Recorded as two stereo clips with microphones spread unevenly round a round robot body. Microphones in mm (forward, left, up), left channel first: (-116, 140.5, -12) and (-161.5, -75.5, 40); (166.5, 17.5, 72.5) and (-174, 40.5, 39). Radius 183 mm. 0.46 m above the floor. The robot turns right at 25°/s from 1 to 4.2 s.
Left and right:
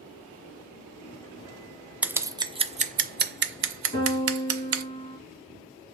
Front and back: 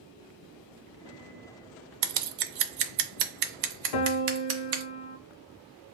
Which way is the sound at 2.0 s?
170° left.